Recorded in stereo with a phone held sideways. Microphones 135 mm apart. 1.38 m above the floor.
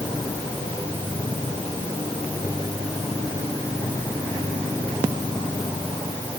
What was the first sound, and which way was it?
Only background noise.